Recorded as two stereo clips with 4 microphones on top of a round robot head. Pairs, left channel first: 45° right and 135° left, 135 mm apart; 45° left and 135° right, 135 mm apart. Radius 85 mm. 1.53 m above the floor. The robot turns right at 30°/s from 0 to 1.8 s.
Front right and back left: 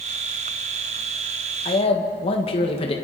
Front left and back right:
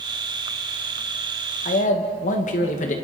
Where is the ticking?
I don't hear ticking.